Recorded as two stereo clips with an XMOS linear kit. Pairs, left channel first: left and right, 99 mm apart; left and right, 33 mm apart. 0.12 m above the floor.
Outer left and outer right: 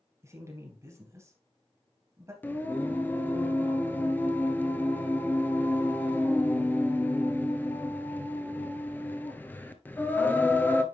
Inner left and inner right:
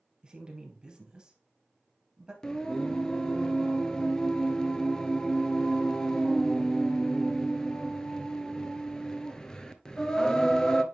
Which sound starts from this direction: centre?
Singing, at 2.4 s.